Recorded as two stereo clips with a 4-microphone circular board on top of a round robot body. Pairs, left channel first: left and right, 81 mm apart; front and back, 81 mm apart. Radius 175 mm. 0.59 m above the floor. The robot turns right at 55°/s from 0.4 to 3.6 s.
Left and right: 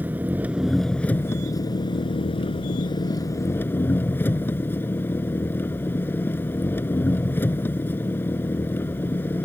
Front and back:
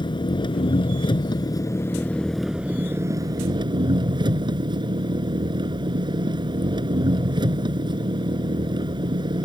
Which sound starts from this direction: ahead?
An engine running, at 0.0 s.